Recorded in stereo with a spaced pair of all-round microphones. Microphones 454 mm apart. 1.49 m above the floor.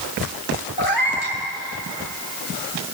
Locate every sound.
0.8 s a cat meowing: 50° left (ahead or behind), 2.5 m